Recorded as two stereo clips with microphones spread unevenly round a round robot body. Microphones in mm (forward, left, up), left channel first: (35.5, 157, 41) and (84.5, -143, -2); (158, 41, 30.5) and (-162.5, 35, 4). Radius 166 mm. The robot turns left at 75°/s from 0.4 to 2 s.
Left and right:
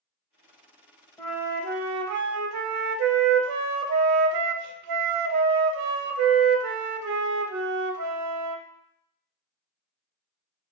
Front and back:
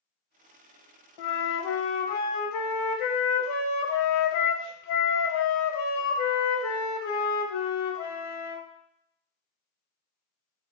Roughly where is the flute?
Ahead.